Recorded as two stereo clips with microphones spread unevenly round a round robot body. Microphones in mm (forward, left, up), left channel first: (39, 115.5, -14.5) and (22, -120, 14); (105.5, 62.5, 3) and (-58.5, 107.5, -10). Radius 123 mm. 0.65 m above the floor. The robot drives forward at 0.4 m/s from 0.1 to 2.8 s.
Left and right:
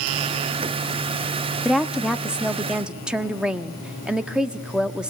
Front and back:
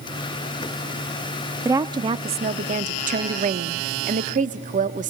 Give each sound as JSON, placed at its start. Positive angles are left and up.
{"t": 1.6, "sound": "a woman speaking", "azimuth_deg": 160, "distance_m": 0.6}